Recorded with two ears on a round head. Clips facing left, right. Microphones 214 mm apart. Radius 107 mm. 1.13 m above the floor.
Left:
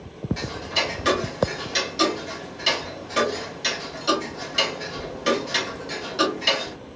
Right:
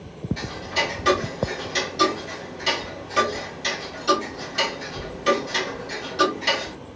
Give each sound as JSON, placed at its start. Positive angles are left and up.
{"t": 0.4, "sound": "ticking", "side_deg": 20, "distance_m": 1.4}